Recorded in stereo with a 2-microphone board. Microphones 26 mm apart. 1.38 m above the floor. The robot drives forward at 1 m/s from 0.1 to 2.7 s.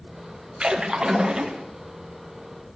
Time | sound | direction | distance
0.6 | a splash | 40° right (ahead or behind) | 1.7 m